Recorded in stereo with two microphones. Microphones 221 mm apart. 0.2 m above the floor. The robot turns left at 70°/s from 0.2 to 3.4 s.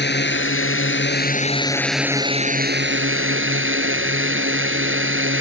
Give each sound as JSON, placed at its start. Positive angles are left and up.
{"t": 0.0, "sound": "a drone", "azimuth_deg": 120}